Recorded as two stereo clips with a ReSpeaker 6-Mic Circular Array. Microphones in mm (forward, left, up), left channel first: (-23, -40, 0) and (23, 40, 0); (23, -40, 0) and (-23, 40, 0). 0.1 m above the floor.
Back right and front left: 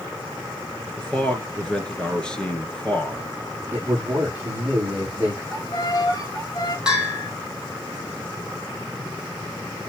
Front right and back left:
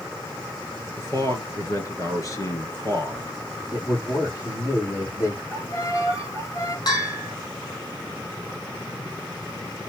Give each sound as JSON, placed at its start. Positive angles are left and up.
{"t": 1.0, "sound": "a man speaking", "azimuth_deg": -45, "distance_m": 2.0}
{"t": 3.7, "sound": "a man speaking", "azimuth_deg": -10, "distance_m": 5.5}
{"t": 5.5, "sound": "a violin", "azimuth_deg": -100, "distance_m": 1.5}
{"t": 6.9, "sound": "a bell", "azimuth_deg": -20, "distance_m": 3.0}